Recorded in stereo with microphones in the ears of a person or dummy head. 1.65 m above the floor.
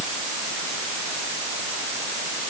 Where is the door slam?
No door slam in this recording.